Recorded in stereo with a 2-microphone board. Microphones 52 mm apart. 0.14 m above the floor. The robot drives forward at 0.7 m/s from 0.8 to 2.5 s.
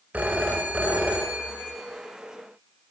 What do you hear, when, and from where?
0.1 s a phone ringing: 30° right (ahead or behind), 0.9 m; by 1.8 s 20° right (ahead or behind), 1.4 m